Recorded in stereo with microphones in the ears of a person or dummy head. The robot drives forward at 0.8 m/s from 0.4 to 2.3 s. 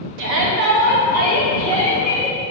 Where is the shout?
70° right (ahead or behind), 1.0 m; by 2.4 s 30° right (ahead or behind), 2 m.